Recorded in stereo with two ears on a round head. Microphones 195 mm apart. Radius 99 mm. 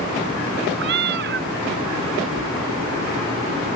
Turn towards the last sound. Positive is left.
turn(degrees=-50)  # may be behind; listen again after turning